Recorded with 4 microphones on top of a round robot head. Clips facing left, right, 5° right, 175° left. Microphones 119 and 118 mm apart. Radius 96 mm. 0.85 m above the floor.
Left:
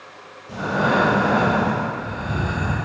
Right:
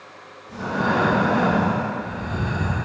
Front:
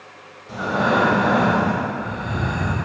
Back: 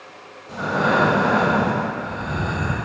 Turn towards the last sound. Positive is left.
turn(degrees=75)